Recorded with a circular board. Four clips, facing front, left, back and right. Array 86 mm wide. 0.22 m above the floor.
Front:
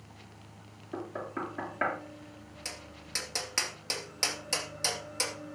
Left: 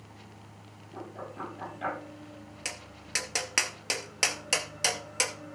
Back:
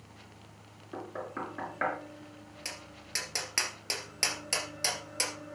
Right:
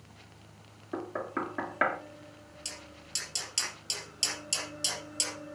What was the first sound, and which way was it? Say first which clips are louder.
Knocking: right 6 dB, front 2 dB; 90° right.